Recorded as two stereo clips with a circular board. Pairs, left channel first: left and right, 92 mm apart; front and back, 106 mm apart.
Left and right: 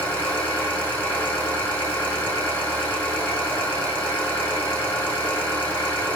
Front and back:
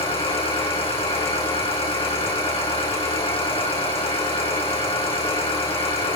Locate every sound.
0.0 s an engine running: 20° left, 6 m